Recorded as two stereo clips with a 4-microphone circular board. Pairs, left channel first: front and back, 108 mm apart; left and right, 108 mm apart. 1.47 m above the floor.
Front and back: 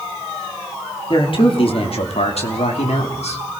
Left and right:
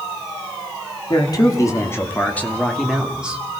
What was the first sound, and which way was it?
A man speaking, 40° left.